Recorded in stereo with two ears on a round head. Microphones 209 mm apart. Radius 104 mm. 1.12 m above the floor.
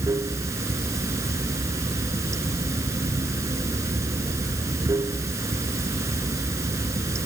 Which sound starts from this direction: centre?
Running water, at 0.0 s.